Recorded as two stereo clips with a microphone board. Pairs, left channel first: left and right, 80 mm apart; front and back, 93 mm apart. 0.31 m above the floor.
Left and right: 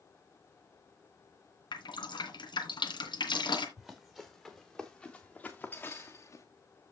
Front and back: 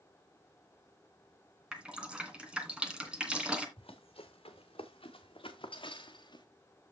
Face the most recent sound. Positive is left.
turn(degrees=40)